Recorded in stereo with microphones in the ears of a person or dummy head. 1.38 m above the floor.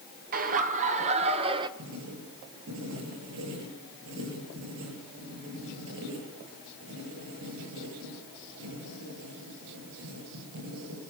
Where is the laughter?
45° right (ahead or behind), 2.0 m; by 1.7 s 25° right (ahead or behind), 1.5 m.